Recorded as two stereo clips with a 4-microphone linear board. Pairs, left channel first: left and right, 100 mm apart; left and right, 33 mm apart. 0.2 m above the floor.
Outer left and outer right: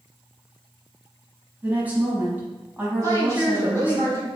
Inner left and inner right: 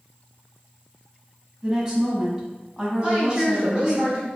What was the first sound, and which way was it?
A woman speaking, 20° right (ahead or behind).